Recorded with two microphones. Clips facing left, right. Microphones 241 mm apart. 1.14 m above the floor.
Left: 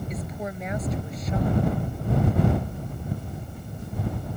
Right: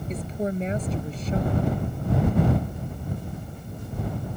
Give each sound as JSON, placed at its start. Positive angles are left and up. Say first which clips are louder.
{"t": 0.1, "sound": "a woman speaking", "louder": "right 5 dB", "side_deg": -30}